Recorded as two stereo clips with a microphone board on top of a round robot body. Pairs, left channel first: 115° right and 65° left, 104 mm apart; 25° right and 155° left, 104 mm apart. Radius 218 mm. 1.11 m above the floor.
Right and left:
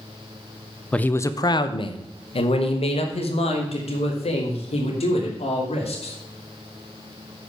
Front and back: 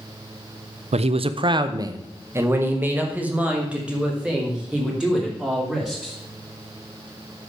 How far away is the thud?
No thud in this recording.